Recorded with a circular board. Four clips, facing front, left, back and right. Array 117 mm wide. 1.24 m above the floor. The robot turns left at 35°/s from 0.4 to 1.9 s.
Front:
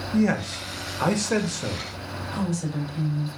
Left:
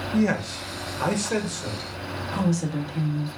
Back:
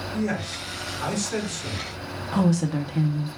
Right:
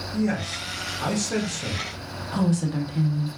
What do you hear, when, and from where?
0.1 s a man speaking: 45° left, 0.8 m; by 1.9 s 5° right, 0.8 m
2.3 s a woman speaking: 170° right, 0.7 m